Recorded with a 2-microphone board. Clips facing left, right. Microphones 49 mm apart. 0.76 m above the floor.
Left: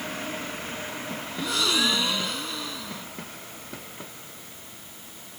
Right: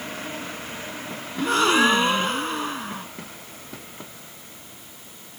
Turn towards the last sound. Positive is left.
turn(degrees=-45)  # may be behind; listen again after turning